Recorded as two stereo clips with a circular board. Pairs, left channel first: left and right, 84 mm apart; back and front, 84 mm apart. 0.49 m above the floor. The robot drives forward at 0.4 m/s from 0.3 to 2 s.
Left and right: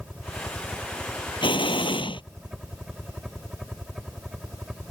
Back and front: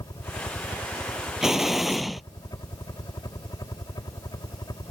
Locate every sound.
0.0 s a helicopter: 175° right
1.4 s an explosion: 85° left; by 2.2 s 90° left